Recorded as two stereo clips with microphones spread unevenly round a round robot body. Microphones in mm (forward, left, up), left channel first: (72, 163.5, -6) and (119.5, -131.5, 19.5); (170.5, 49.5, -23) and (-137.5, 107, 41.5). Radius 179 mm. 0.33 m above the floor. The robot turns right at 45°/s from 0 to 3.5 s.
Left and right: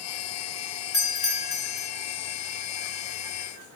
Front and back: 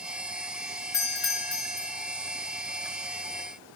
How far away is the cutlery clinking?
I don't hear cutlery clinking.